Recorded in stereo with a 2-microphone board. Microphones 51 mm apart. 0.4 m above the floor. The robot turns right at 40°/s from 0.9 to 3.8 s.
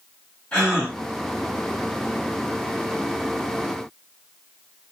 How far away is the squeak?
No squeak in this recording.